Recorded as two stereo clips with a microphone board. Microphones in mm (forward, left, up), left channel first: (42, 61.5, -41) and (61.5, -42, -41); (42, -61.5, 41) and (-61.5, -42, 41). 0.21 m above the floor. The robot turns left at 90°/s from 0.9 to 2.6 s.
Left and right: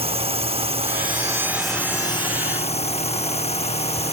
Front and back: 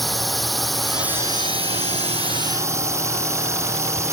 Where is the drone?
100° right; by 4.1 s 105° left.